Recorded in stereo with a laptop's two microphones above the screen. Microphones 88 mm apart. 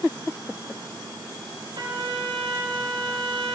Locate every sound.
1.8 s a trumpet: 70° right (ahead or behind), 4 m